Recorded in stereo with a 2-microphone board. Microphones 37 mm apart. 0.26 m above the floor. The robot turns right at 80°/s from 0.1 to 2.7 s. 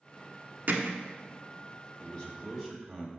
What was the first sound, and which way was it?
Hammering, 60° right (ahead or behind).